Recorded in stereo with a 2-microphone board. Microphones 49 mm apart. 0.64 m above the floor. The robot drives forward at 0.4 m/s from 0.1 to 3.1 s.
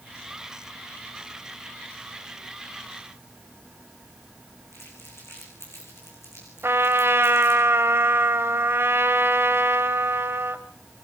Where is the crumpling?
60° left (ahead or behind), 8 m.